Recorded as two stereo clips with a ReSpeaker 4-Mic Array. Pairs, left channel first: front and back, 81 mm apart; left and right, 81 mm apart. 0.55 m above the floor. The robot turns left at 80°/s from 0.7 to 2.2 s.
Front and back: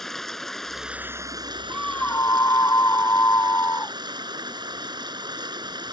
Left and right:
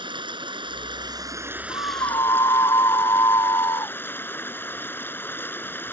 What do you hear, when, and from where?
0.0 s running water: 85° right; by 5.9 s 155° left
1.7 s a scream: 90° left; by 4.0 s 50° left